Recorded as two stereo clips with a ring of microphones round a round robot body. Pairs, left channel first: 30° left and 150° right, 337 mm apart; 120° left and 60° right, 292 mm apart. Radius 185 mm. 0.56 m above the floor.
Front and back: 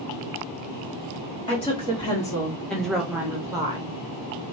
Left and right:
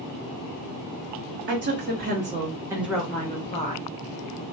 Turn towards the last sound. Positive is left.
turn(degrees=145)